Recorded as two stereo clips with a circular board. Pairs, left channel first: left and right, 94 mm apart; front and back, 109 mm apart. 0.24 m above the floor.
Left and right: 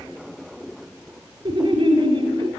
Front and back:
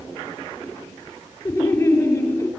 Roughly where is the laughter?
Ahead right.